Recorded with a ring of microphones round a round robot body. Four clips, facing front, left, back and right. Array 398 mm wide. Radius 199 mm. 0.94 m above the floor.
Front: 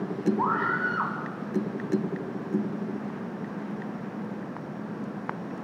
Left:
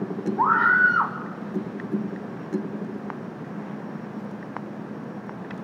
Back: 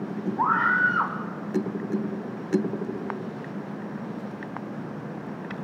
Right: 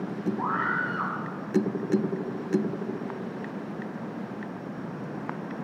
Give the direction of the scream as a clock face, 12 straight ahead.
8 o'clock.